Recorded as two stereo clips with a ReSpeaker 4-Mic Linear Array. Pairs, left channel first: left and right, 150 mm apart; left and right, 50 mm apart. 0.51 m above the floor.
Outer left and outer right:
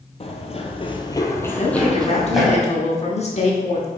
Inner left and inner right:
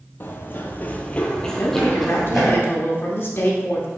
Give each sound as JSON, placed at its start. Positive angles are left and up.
{"t": 0.2, "sound": "running footsteps", "side_deg": 40, "distance_m": 0.7}
{"t": 1.6, "sound": "a woman speaking", "side_deg": 45, "distance_m": 1.0}